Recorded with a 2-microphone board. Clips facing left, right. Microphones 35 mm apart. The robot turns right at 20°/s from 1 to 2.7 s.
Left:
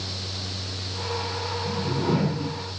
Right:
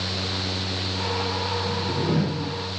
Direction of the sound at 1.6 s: 60° left (ahead or behind).